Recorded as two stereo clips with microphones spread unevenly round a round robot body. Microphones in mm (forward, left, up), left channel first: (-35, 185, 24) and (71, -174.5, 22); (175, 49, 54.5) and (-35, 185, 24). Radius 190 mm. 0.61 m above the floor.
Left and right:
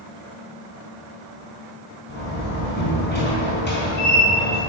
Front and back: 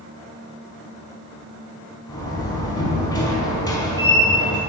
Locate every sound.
2.1 s a door slam: 40° left, 4.5 m